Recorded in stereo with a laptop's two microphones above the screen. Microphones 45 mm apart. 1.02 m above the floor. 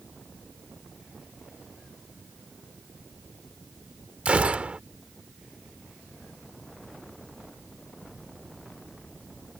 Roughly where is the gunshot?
Right.